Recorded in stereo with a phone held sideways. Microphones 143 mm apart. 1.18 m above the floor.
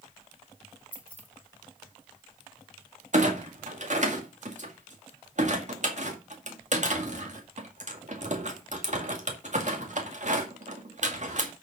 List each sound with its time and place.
0.9 s keys jangling: 10° left (ahead or behind), 1.6 m
3.1 s a clunk: 55° right (ahead or behind), 2 m